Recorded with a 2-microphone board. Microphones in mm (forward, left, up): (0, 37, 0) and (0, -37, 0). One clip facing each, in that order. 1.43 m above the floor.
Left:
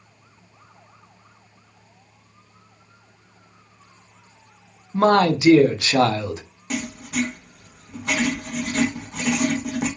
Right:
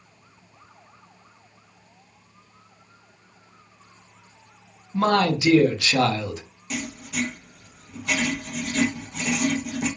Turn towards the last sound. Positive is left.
turn(degrees=55)  # may be behind; listen again after turning